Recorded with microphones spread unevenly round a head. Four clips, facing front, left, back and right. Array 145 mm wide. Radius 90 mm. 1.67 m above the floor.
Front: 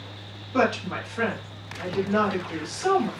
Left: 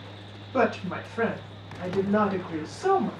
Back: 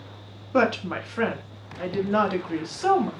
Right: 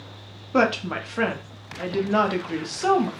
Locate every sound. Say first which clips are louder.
0.5 s a woman speaking: right 3 dB, back 1 dB; 105° right, 0.7 m